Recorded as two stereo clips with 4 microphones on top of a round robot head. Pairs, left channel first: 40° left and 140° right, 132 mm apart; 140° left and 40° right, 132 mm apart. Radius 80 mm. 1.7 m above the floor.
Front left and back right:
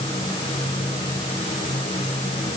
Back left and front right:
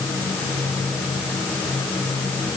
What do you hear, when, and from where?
Only background noise.